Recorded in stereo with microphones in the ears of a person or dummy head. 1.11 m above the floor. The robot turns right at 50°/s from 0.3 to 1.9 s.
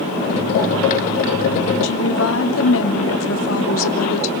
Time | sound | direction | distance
1.8 | a woman speaking | 65° left (ahead or behind) | 2.5 m